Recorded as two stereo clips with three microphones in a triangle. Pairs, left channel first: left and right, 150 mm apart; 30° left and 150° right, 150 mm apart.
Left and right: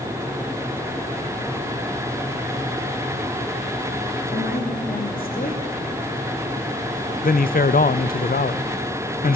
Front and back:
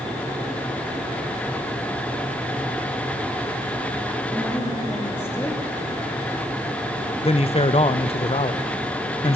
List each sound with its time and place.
4.3 s a woman speaking: 105° left, 3 m
7.2 s a man speaking: 75° left, 0.5 m